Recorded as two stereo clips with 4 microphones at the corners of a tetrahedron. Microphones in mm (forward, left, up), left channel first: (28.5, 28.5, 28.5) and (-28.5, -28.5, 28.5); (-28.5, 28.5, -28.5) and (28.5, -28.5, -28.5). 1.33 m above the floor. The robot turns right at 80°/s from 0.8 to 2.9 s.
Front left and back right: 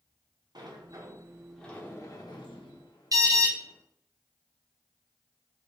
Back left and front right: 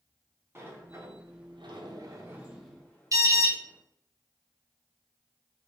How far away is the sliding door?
About 0.9 m.